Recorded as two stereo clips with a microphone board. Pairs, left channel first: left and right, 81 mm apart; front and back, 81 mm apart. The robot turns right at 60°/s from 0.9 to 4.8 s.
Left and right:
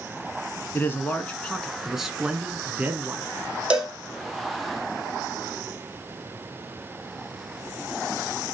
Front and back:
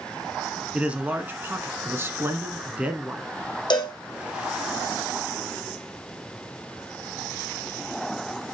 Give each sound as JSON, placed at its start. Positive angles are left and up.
{"t": 0.7, "sound": "a man speaking", "azimuth_deg": 120, "distance_m": 1.6}
{"t": 3.7, "sound": "a cowbell", "azimuth_deg": -15, "distance_m": 1.9}